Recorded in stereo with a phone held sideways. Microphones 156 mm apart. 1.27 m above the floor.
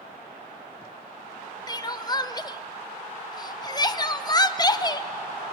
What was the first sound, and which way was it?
Crying, 25° left (ahead or behind).